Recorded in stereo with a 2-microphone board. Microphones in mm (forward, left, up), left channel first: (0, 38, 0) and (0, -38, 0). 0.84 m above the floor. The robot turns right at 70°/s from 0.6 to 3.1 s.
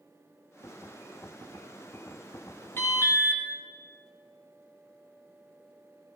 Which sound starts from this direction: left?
An alarm, at 2.8 s.